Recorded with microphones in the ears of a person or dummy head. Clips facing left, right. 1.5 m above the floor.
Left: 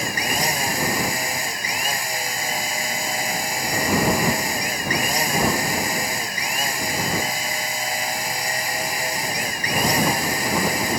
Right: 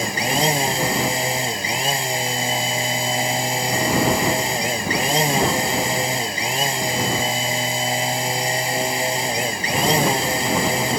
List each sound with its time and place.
0.0 s a machine running: 20° right (ahead or behind)